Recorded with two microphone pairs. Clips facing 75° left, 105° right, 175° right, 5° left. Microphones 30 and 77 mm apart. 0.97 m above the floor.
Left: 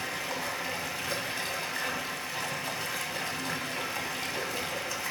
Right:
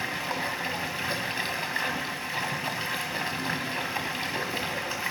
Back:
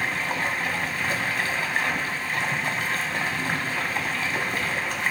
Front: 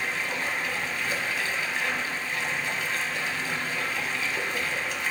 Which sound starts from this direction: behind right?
Running water, at 0.0 s.